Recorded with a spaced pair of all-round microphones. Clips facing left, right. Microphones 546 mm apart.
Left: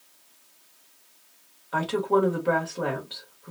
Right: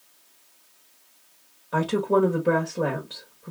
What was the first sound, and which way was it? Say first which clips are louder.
A woman speaking: right 2 dB; 55° right (ahead or behind).